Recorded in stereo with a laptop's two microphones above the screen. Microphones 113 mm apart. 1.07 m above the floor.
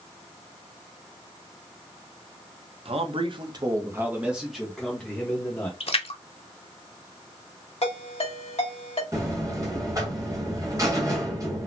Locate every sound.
2.9 s a man speaking: 60° right (ahead or behind), 0.8 m; by 5.7 s 20° left (ahead or behind), 1.2 m
5.8 s a splash: 60° left (ahead or behind), 0.7 m
7.8 s a ringtone: 65° left (ahead or behind), 1.0 m
9.1 s a buzzer: 30° right (ahead or behind), 1.1 m